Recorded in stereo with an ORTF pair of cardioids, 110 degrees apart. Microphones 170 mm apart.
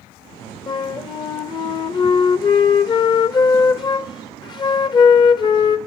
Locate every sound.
0.7 s a flute: 25° left, 0.5 m